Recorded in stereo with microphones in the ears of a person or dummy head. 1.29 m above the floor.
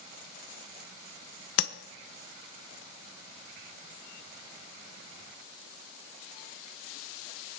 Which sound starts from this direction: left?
Tapping, at 1.6 s.